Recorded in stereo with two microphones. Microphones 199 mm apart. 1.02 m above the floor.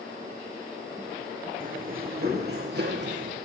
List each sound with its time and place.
1.6 s running footsteps: 45° right (ahead or behind), 3 m; by 3.4 s 65° right (ahead or behind), 3 m